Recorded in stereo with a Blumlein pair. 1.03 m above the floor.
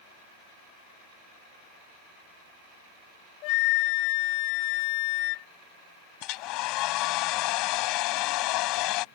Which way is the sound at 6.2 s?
40° left.